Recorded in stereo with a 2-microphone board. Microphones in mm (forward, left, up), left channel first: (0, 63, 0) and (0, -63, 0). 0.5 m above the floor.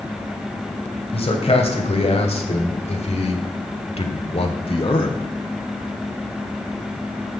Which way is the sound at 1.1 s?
50° left (ahead or behind).